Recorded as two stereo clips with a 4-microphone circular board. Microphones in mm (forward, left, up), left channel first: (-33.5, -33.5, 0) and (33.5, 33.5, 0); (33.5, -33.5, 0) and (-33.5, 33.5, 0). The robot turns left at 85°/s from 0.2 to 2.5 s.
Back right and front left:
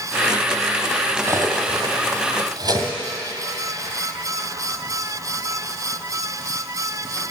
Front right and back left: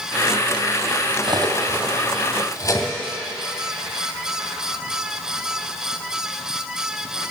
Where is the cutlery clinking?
115° left, 2 m; by 2.9 s 5° left, 2 m.